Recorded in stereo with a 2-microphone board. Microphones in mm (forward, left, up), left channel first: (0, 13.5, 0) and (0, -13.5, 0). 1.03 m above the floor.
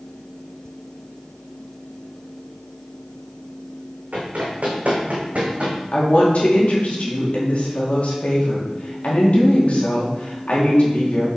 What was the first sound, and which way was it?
Running footsteps, 70° right (ahead or behind).